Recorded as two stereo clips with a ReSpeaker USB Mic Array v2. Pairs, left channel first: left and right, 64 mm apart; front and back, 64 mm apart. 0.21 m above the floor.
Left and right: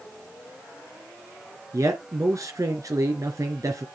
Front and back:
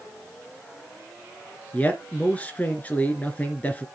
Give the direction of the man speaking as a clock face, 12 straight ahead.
2 o'clock.